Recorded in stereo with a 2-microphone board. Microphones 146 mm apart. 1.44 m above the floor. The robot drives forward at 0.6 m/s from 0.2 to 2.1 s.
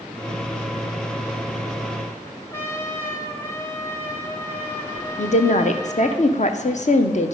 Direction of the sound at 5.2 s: 55° left (ahead or behind).